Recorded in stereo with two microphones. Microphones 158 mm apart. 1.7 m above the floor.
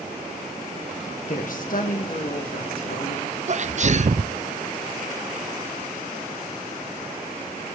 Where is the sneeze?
50° right (ahead or behind), 0.5 m.